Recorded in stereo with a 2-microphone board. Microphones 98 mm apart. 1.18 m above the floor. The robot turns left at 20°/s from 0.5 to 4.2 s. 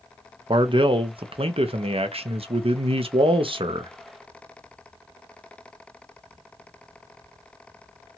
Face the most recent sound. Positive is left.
turn(degrees=-130)